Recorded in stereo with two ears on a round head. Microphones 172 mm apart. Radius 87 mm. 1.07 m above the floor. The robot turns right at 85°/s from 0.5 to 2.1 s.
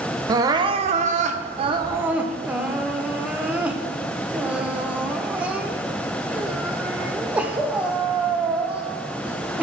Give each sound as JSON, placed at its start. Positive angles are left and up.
{"t": 0.3, "sound": "crying", "azimuth_deg": -145, "distance_m": 0.6}